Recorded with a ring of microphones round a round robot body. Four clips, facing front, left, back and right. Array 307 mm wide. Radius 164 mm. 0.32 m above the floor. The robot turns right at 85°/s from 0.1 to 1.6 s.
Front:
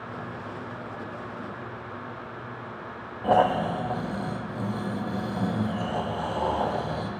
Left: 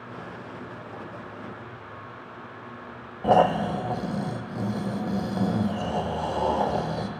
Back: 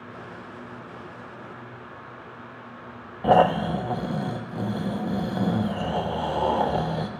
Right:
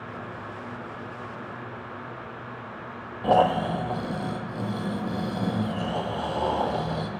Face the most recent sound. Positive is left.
turn(degrees=165)